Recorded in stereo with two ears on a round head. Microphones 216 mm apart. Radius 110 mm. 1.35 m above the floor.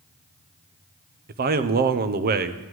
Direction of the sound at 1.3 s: 40° right (ahead or behind).